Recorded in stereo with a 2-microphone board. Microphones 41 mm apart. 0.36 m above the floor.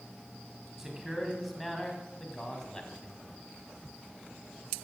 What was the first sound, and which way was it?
A man speaking, 15° right (ahead or behind).